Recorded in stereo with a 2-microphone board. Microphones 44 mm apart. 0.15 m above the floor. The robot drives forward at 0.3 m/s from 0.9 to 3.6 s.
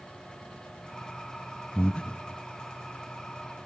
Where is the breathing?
25° left (ahead or behind), 0.6 m; by 2.2 s 20° left (ahead or behind), 0.6 m.